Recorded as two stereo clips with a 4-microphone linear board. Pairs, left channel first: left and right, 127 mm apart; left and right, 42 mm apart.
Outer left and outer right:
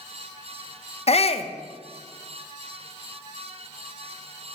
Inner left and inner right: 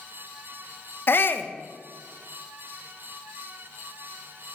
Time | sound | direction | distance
1.1 | a shout | 55° left (ahead or behind) | 0.5 m